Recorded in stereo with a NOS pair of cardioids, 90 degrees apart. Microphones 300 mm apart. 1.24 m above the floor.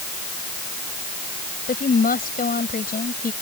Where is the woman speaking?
30° left.